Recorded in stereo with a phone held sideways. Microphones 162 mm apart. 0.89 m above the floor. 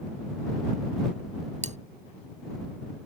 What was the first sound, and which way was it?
Cutlery clinking, 45° right (ahead or behind).